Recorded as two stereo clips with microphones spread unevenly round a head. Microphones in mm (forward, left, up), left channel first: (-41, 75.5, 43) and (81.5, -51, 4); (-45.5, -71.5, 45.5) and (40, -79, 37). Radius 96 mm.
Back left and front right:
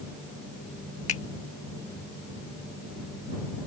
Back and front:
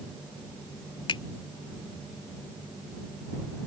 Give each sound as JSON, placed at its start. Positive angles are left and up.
{"t": 1.1, "sound": "a finger snap", "azimuth_deg": -170}